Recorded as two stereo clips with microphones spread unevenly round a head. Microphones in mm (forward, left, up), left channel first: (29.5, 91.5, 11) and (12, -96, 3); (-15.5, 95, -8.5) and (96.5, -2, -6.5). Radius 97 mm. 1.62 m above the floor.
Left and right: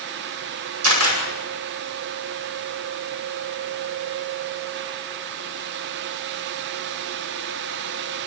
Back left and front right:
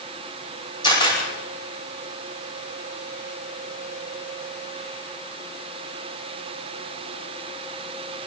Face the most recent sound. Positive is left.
turn(degrees=-115)